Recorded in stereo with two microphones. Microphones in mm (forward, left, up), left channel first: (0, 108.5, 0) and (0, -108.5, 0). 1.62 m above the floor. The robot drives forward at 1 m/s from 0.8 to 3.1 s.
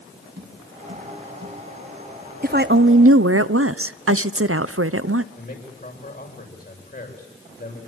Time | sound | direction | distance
0.4 | tapping | 50° right (ahead or behind) | 7.5 m
2.4 | a woman speaking | 45° right (ahead or behind) | 1.0 m
5.3 | a man speaking | 45° left (ahead or behind) | 7.5 m